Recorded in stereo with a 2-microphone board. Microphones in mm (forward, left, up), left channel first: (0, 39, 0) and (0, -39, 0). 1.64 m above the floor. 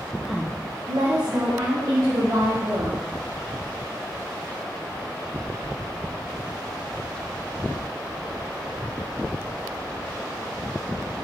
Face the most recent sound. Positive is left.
turn(degrees=-75)  # may be behind; listen again after turning